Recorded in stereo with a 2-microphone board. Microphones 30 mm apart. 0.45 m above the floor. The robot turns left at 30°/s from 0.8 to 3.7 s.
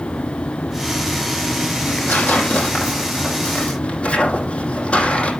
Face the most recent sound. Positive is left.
turn(degrees=40)  # may be behind; listen again after turning